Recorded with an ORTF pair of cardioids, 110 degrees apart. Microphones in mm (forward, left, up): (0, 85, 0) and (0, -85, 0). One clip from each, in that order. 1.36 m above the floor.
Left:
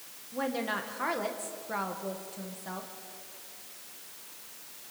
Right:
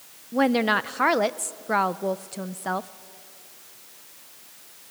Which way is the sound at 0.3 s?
60° right.